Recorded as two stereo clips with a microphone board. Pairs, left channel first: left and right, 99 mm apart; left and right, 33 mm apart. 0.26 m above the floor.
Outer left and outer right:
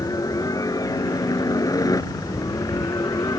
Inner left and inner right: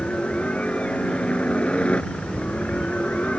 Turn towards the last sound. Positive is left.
turn(degrees=35)  # may be behind; listen again after turning